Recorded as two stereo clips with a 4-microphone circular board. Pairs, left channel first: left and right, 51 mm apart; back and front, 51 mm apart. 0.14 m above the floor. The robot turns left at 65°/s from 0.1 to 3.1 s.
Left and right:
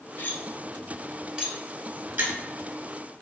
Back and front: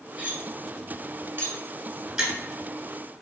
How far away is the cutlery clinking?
About 1.1 m.